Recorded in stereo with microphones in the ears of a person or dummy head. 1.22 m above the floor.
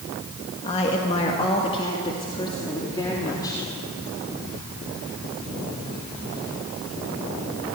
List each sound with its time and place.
0.6 s a woman speaking: 40° left (ahead or behind), 2 m; by 3.6 s 20° left (ahead or behind), 3.5 m